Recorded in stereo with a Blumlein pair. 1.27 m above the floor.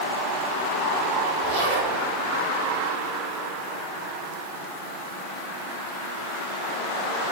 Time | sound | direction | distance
1.4 | a zipper | 50° right | 3.5 m